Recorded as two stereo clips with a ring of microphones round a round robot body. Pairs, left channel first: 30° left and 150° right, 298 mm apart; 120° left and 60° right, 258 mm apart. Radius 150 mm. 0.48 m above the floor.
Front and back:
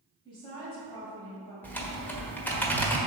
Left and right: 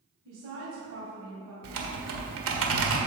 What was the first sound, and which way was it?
A woman speaking, 40° right.